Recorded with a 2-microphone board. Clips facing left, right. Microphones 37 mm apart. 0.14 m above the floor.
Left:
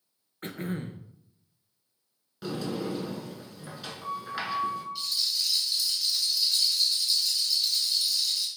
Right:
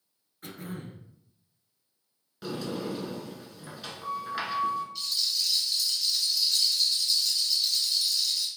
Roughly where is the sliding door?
Centre.